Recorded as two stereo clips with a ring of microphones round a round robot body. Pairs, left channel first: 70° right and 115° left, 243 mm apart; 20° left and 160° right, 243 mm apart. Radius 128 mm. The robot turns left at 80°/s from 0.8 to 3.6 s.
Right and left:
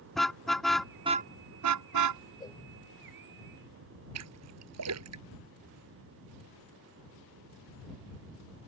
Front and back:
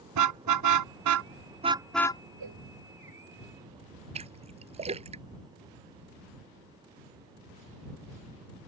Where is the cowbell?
140° right; by 2.6 s 155° right.